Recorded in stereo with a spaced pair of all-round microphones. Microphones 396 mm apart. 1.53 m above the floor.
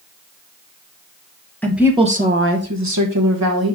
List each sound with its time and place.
1.6 s a woman speaking: 5° left (ahead or behind), 0.9 m; by 3.8 s 65° right (ahead or behind), 1.7 m